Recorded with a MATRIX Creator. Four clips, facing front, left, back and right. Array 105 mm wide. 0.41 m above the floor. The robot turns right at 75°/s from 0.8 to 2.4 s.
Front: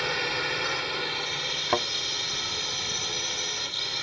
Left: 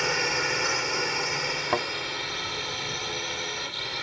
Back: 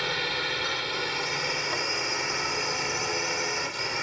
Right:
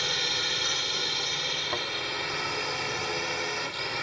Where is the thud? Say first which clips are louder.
Left 8 dB, front 5 dB; 35° left; by 1.9 s 50° left.